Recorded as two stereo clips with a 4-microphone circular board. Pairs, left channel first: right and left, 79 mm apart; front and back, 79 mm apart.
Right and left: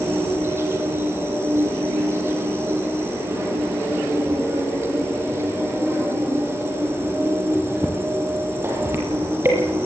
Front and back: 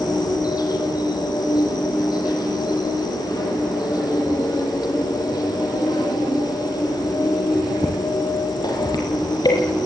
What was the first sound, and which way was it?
An insect, 35° left.